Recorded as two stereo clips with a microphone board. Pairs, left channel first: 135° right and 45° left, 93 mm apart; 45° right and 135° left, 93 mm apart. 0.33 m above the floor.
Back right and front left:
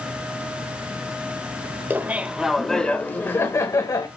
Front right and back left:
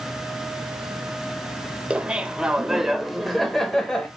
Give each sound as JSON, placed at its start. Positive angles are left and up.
{"t": 1.9, "sound": "laughter", "azimuth_deg": 75, "distance_m": 1.0}